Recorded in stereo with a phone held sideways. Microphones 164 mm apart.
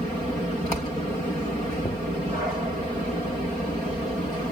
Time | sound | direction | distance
1.8 | knocking | 40° left (ahead or behind) | ?